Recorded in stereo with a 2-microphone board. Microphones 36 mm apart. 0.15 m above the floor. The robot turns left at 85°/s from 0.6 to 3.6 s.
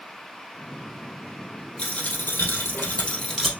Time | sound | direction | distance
1.8 | a dropped coin | 155° left | 1.9 m